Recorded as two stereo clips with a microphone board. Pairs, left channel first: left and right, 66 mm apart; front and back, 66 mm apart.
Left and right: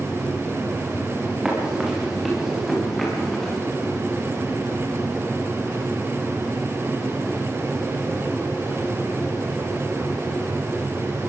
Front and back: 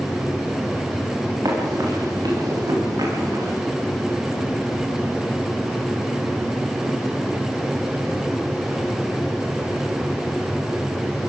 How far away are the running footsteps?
About 9.5 m.